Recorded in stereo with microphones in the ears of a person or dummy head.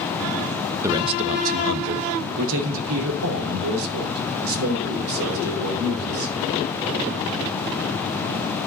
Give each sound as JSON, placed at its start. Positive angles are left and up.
{"t": 0.8, "sound": "a man speaking", "side_deg": -10, "distance_m": 0.6}